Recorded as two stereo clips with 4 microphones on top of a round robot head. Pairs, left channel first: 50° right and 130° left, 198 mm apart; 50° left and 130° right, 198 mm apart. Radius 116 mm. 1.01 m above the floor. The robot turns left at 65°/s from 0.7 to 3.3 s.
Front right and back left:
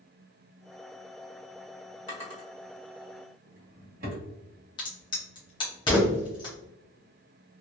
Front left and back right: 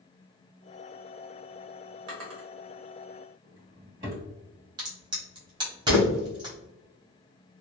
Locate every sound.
2.1 s a drawer: 100° right, 1.3 m; by 4.2 s straight behind, 1.3 m
4.8 s a crack: 90° right, 0.9 m